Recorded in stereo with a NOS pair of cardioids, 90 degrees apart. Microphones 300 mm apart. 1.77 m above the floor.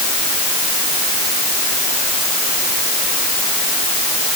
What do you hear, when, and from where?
Only background noise.